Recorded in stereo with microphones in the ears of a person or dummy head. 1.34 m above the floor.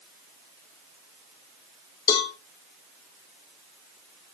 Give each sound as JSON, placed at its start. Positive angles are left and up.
{"t": 2.1, "sound": "a cowbell", "side_deg": 25, "distance_m": 2.5}